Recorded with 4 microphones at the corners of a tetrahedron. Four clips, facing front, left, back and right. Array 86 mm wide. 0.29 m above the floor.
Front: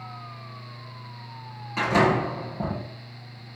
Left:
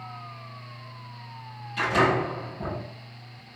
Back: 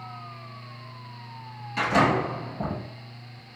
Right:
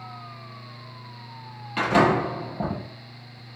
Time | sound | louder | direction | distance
1.8 | a door slam | right 3 dB, front 1 dB | 65° right | 6 m